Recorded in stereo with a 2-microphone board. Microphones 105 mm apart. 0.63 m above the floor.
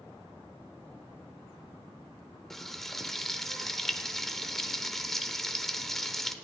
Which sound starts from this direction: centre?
Frying, at 2.5 s.